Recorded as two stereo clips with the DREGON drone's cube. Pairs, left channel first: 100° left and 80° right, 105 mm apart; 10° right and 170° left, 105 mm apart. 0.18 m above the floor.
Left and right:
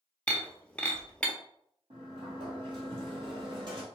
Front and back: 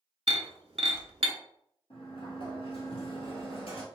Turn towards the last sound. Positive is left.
turn(degrees=-40)